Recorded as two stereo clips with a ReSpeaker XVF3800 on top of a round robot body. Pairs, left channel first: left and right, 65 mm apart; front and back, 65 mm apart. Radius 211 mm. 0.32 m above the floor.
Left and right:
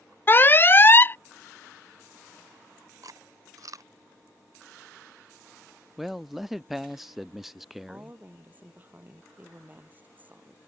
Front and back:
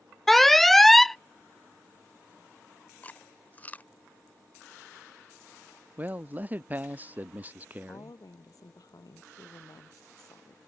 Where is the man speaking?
175° right.